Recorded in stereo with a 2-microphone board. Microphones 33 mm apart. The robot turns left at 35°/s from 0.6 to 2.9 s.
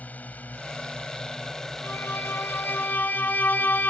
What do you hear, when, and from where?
0.0 s a drone: 50° left; by 3.9 s 30° right
1.8 s a violin: 100° left; by 3.9 s 60° left